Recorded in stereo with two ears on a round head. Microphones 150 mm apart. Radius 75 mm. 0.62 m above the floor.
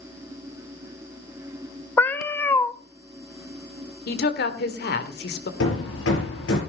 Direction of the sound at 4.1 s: 65° left (ahead or behind).